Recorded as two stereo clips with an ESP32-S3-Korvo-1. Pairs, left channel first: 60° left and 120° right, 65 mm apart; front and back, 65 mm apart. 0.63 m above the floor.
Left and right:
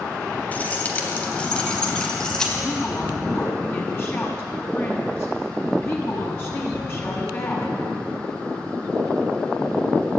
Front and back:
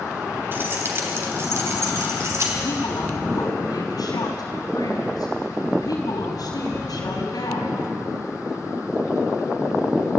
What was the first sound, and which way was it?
Keys jangling, 125° left.